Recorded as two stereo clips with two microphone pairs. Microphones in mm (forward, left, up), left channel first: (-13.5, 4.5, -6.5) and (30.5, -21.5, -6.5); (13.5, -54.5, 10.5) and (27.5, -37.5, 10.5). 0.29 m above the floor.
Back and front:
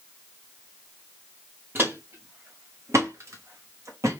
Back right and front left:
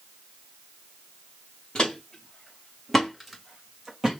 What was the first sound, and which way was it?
Footsteps, 75° right.